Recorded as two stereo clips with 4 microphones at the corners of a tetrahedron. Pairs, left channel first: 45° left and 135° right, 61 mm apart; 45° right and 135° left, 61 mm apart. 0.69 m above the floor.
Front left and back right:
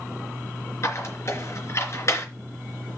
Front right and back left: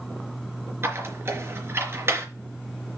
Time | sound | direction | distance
0.8 | a squeak | 85° left | 3.5 m